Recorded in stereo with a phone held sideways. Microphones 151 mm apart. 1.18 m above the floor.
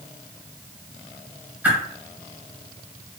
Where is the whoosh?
10° right (ahead or behind), 1.1 m.